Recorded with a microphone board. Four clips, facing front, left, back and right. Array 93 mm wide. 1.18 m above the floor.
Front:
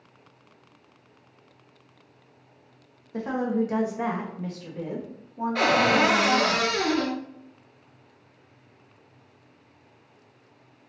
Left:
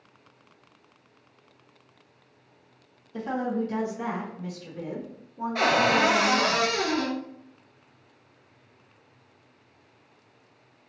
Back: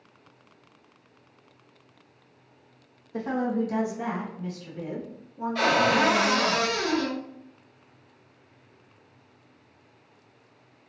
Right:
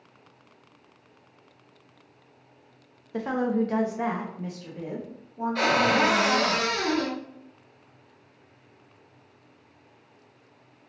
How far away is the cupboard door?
About 1.5 m.